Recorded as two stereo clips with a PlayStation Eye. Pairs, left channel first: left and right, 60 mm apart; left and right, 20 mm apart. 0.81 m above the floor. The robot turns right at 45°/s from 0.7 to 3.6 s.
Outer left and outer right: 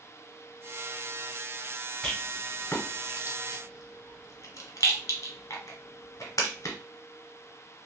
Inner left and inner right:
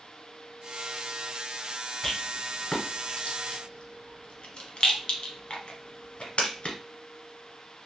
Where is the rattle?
10° left (ahead or behind), 1.2 m; by 6.8 s 65° left (ahead or behind), 1.2 m.